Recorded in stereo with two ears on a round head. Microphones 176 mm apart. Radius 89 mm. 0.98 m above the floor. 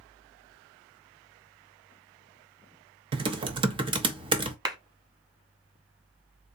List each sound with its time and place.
3.1 s typing on a keyboard: 25° right (ahead or behind), 0.5 m
4.7 s a clap: 20° right (ahead or behind), 1.0 m